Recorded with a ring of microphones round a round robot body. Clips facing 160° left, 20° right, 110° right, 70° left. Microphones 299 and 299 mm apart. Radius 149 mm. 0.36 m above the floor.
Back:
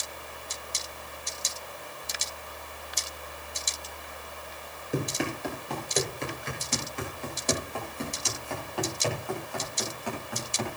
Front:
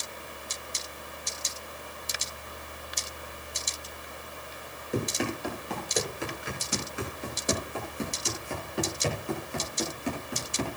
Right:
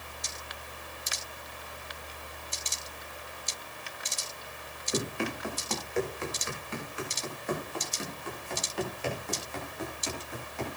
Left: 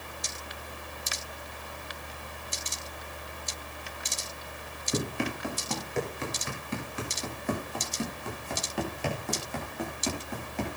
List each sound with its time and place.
4.9 s running footsteps: 70° left, 8.5 m; by 10.8 s 40° left, 9 m